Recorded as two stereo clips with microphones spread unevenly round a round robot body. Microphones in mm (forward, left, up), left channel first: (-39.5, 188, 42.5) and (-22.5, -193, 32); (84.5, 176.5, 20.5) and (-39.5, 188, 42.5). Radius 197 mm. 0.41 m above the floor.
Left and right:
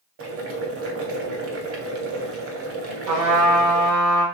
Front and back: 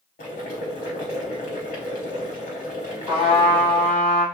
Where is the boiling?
30° right, 0.7 m.